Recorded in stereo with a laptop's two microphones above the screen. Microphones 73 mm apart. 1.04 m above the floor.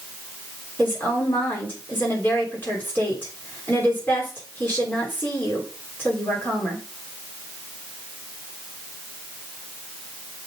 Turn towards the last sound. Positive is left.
turn(degrees=25)  # may be behind; listen again after turning